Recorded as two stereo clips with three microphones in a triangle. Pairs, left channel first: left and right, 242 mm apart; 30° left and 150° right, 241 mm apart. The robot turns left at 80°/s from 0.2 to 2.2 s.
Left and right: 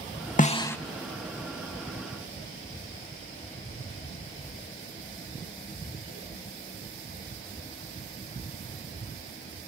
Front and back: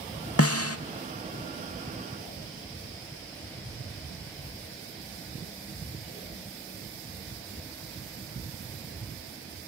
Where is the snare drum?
40° left, 0.6 m; by 0.8 s 10° left, 0.6 m.